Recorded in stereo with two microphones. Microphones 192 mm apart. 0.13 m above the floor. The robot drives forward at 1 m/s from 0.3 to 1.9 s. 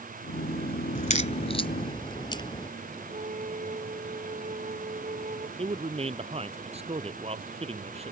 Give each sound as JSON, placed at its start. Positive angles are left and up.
{"t": 0.9, "sound": "a crack", "side_deg": 40}
{"t": 3.1, "sound": "a flute", "side_deg": -40}
{"t": 5.6, "sound": "a man speaking", "side_deg": -30}